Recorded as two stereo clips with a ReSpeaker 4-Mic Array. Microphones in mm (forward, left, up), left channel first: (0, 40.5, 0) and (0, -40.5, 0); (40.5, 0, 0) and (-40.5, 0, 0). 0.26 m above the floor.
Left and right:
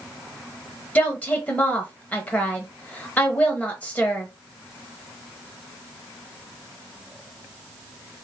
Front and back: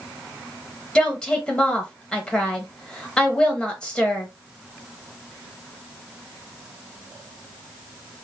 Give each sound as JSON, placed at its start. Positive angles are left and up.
{"t": 0.9, "sound": "a woman speaking", "azimuth_deg": 55, "distance_m": 0.9}